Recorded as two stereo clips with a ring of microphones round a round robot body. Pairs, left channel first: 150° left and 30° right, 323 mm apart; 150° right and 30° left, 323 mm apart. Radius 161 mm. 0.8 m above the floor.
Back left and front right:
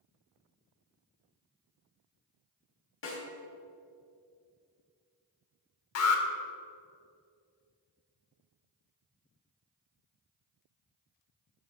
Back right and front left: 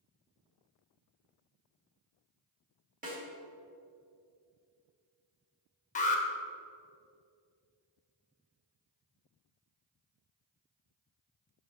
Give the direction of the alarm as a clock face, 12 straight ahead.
7 o'clock.